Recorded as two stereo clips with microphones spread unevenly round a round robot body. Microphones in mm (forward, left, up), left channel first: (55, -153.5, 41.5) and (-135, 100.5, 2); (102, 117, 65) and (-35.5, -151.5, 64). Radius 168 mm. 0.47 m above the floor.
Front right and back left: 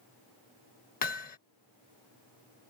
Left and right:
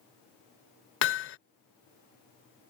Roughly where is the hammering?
Ahead.